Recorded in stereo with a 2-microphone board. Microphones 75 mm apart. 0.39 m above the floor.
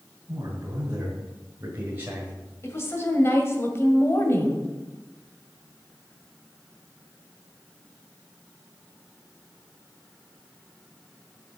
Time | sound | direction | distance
0.3 | a man speaking | 40° right (ahead or behind) | 2.5 m
2.6 | a woman speaking | 35° left (ahead or behind) | 1.9 m